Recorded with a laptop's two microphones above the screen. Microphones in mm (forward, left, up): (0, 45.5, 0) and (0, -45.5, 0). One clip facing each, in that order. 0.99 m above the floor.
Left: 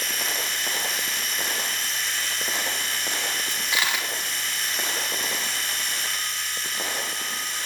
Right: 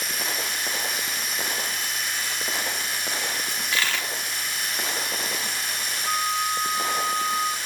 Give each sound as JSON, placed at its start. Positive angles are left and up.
{"t": 0.0, "sound": "a machine running", "side_deg": -10, "distance_m": 1.1}
{"t": 3.5, "sound": "a dropped coin", "side_deg": 15, "distance_m": 0.6}
{"t": 6.0, "sound": "a flute", "side_deg": -50, "distance_m": 0.6}